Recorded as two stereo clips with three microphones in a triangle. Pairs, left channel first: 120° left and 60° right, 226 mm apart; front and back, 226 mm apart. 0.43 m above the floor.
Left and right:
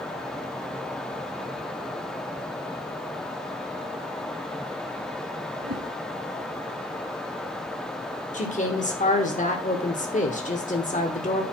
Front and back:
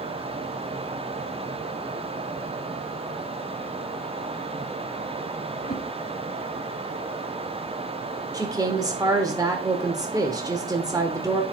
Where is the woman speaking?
120° left, 1.2 m.